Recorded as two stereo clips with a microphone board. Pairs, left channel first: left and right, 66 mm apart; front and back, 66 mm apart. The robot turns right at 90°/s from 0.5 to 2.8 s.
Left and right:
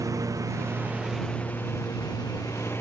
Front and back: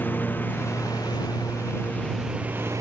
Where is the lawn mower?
60° right; by 2.8 s 145° left.